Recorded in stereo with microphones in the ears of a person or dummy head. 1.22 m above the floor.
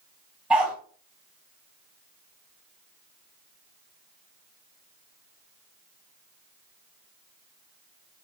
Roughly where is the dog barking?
Centre.